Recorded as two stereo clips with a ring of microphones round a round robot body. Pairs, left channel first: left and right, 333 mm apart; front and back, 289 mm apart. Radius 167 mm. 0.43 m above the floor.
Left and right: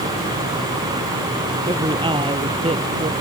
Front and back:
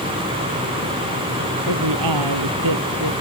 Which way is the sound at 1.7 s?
165° right.